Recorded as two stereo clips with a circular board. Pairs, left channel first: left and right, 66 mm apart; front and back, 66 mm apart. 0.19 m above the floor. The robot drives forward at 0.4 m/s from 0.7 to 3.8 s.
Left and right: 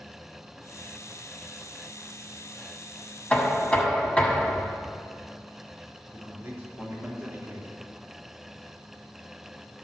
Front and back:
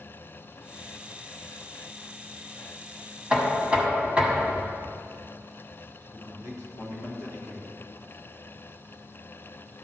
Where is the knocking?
120° left, 1.3 m; by 4.8 s 135° left, 1.3 m.